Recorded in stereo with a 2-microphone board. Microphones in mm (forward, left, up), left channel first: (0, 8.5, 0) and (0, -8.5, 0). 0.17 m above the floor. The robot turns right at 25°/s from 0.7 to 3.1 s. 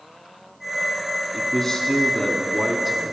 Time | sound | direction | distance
1.3 | a man speaking | 160° left | 1.2 m